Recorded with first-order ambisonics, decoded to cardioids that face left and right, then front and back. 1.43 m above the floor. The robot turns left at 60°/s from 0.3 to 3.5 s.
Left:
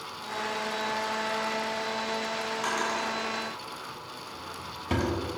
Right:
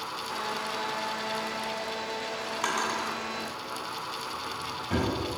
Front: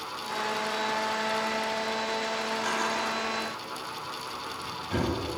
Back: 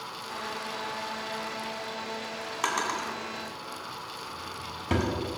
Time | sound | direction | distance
2.6 | a drawer | 160° right | 3 m